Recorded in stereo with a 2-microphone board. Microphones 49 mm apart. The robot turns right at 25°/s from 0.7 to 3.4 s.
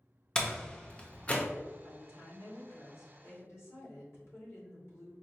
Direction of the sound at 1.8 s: 70° left.